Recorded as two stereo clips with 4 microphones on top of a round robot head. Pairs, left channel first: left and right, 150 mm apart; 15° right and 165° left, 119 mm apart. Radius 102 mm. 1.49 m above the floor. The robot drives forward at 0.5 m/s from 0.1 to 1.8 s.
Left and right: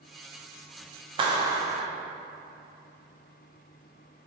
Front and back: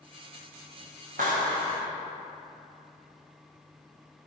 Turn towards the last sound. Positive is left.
turn(degrees=-155)